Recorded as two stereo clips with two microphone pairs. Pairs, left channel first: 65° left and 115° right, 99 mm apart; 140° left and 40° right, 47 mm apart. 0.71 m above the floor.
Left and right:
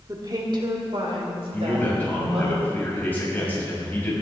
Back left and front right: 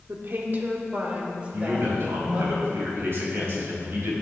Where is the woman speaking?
65° right, 1.7 m; by 2.5 s 110° right, 4.5 m.